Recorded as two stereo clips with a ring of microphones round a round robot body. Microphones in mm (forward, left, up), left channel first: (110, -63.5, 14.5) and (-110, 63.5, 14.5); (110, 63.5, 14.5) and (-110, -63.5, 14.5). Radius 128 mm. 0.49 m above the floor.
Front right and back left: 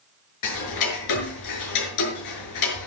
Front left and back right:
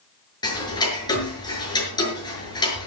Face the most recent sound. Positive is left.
turn(degrees=-45)